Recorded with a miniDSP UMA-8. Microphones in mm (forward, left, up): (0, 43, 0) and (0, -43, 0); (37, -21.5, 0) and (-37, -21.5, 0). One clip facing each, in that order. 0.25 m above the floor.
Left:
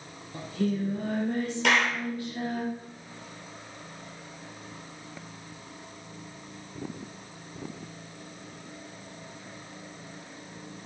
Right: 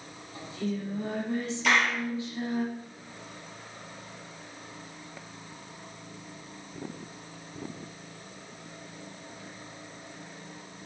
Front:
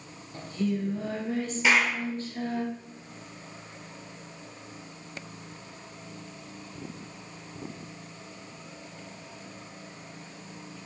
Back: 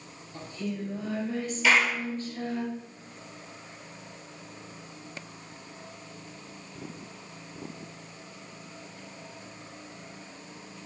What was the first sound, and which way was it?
Singing, 55° left.